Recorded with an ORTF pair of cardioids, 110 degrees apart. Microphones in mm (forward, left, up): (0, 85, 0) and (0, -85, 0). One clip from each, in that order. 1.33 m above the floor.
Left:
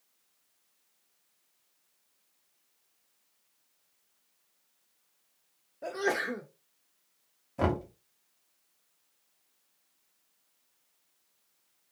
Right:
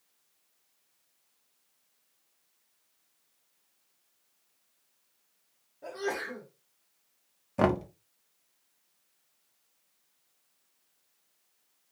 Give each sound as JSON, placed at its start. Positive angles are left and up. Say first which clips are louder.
{"t": 5.8, "sound": "a sneeze", "louder": "left 4 dB", "azimuth_deg": 40, "distance_m": 0.6}
{"t": 7.6, "sound": "knocking", "louder": "right 4 dB", "azimuth_deg": -30, "distance_m": 0.6}